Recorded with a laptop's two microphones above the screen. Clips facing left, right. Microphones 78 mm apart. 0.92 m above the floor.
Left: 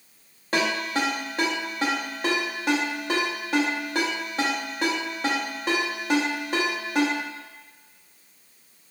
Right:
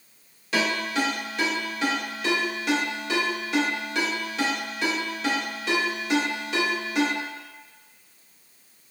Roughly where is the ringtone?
Left.